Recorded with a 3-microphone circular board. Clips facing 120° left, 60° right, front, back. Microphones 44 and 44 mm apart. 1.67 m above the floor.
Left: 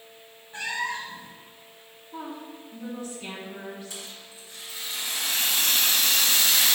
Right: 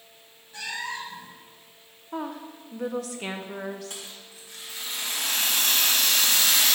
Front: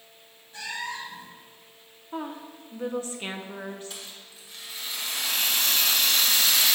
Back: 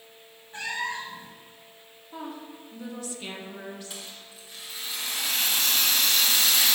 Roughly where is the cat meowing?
Behind left.